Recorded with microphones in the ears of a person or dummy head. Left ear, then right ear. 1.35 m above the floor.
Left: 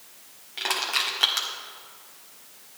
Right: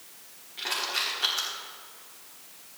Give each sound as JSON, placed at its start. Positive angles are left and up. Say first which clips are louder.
{"t": 0.6, "sound": "crushing", "louder": "left 4 dB", "side_deg": 25, "distance_m": 1.5}